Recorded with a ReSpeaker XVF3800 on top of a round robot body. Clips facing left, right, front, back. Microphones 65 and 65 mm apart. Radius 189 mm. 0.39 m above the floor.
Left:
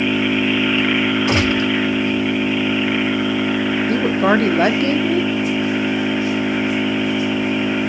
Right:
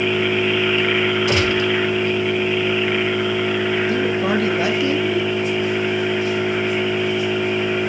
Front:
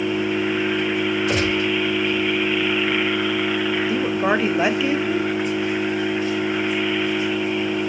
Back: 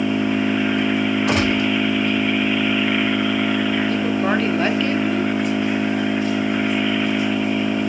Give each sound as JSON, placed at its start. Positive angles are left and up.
{"t": 0.0, "sound": "an engine running", "azimuth_deg": 160, "distance_m": 3.0}
{"t": 1.3, "sound": "a gunshot", "azimuth_deg": 155, "distance_m": 3.5}
{"t": 3.9, "sound": "a woman speaking", "azimuth_deg": 75, "distance_m": 1.1}